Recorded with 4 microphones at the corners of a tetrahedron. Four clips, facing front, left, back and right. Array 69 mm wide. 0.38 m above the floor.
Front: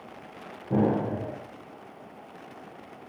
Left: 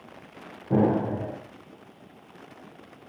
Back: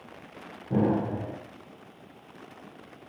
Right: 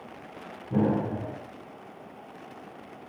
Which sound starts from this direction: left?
An explosion, at 0.7 s.